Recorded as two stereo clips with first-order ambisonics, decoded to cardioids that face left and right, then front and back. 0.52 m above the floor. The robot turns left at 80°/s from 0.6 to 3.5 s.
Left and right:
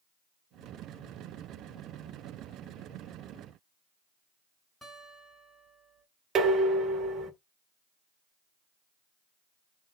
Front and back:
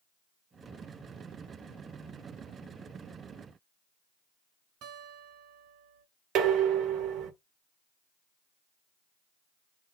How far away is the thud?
I don't hear a thud.